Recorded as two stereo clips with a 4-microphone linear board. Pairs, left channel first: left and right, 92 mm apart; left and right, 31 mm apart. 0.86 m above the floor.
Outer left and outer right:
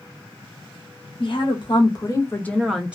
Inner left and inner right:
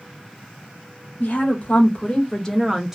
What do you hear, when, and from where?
1.2 s a woman speaking: 60° left (ahead or behind), 1.1 m; by 3.0 s 15° right (ahead or behind), 0.6 m